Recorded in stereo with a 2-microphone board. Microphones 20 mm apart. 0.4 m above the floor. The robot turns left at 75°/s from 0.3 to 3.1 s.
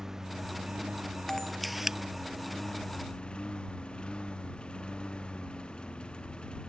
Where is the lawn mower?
20° right; by 6.7 s 130° left.